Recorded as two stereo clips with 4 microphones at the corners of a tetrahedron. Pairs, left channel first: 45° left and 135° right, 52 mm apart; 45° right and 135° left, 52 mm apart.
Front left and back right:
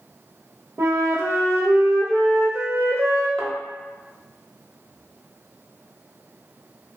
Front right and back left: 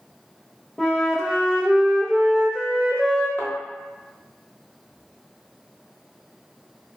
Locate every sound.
0.8 s a flute: 125° right, 0.5 m
3.4 s a thud: 105° left, 0.8 m